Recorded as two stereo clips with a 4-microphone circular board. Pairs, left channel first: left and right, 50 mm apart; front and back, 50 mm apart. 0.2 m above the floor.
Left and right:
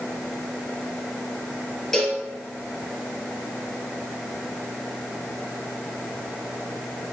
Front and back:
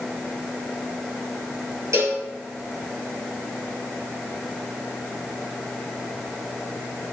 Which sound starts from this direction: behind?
A cowbell, at 1.9 s.